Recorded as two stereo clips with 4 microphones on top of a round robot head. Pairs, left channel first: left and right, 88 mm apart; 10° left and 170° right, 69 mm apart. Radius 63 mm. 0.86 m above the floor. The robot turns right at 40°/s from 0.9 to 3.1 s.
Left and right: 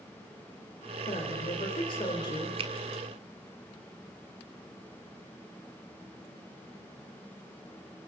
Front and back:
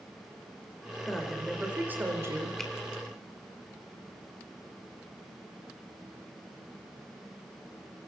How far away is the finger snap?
About 1.6 m.